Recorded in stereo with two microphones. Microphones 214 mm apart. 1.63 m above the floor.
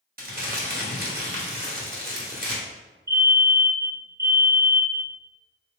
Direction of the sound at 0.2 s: 45° right (ahead or behind).